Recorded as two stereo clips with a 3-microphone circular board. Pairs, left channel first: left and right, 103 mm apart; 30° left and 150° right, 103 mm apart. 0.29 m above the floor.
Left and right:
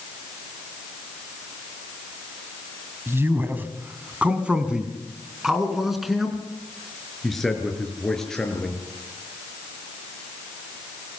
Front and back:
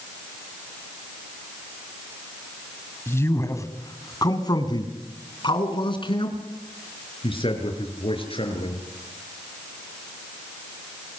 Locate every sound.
3.1 s a man speaking: 30° right, 2.5 m; by 8.8 s 5° left, 6.5 m